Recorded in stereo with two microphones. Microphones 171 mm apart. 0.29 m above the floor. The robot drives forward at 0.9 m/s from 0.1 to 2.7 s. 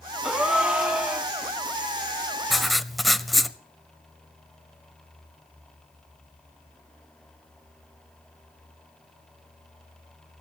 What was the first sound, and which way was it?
A gasp, 5° right (ahead or behind).